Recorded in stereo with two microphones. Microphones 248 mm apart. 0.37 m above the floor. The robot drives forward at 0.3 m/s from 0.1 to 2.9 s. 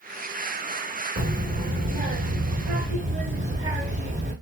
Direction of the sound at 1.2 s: 40° right (ahead or behind).